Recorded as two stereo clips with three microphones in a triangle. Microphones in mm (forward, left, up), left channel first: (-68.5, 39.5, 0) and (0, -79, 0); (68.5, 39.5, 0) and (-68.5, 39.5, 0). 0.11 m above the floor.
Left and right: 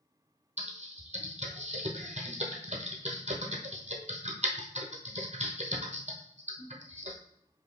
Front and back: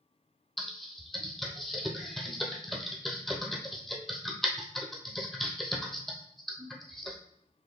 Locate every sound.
0.6 s typing on a keyboard: 90° right, 1.1 m